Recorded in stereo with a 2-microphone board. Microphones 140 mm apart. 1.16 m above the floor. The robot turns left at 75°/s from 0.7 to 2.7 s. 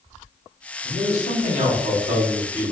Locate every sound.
0.8 s a man speaking: 40° right, 1.9 m; by 2.7 s straight behind, 1.9 m